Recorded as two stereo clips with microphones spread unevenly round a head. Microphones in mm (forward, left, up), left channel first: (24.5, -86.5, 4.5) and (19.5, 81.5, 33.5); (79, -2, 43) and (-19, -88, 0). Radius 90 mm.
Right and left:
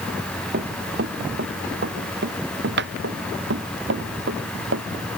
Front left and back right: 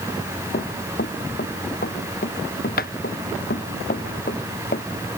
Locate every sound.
0.5 s running footsteps: 65° left; by 4.9 s 80° left